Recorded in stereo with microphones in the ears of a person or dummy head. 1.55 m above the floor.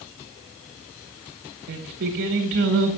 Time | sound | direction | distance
1.7 | singing | 55° right (ahead or behind) | 1.1 m